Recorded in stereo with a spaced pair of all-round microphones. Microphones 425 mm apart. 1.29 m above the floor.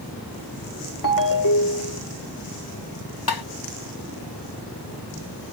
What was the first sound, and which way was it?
A ringtone, 50° left (ahead or behind).